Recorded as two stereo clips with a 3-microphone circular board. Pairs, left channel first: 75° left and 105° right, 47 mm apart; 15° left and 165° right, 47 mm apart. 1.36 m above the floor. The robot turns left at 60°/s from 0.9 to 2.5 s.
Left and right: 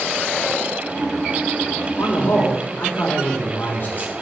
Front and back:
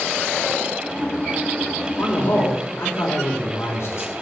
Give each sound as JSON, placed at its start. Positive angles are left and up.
{"t": 2.0, "sound": "a man speaking", "azimuth_deg": 55, "distance_m": 3.5}